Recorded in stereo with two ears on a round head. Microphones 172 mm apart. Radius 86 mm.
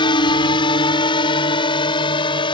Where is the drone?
25° left (ahead or behind).